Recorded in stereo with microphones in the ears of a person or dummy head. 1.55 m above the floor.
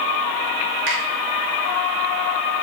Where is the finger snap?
80° right, 3 m.